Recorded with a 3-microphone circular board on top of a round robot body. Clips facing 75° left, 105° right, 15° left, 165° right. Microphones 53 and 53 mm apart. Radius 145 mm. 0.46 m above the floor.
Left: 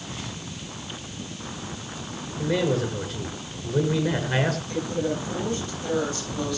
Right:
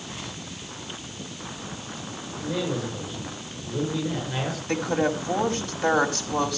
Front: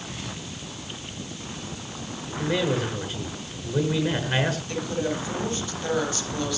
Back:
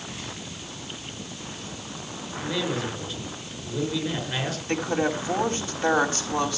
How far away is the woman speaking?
About 4.5 m.